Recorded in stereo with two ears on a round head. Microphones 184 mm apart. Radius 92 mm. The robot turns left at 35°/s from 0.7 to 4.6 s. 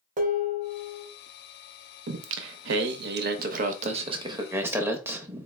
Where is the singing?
80° right, 0.5 m; by 5.5 s 165° right, 0.5 m.